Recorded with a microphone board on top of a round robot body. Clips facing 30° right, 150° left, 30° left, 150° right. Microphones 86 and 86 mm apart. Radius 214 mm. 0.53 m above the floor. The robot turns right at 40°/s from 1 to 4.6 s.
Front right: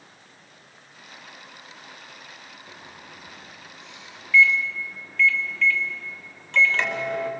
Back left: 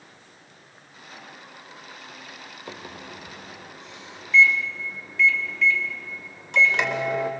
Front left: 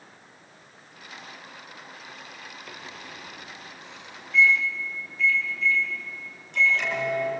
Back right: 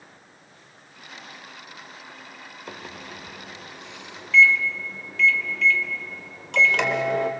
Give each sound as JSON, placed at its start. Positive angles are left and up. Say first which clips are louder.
{"t": 2.7, "sound": "a microwave", "louder": "back left 9 dB, back right 7 dB", "azimuth_deg": 145, "distance_m": 2.0}